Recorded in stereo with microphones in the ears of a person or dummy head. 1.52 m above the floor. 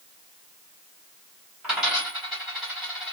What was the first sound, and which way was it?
A dropped coin, 10° right (ahead or behind).